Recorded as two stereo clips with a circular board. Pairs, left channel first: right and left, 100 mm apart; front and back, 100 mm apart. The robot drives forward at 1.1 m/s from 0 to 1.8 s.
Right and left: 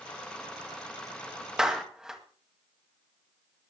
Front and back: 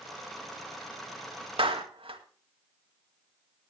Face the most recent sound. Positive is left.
turn(degrees=175)